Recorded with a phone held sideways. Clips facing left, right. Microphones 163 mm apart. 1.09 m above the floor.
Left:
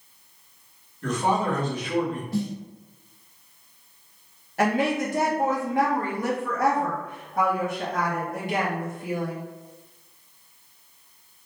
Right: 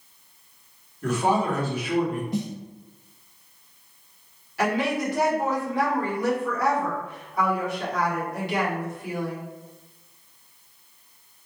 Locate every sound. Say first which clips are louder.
1.0 s a man speaking: right 1 dB; 10° right (ahead or behind), 2 m
2.3 s a snare drum: left 1 dB; 20° right (ahead or behind), 0.5 m
4.6 s a woman speaking: left 1 dB; 50° left (ahead or behind), 1.8 m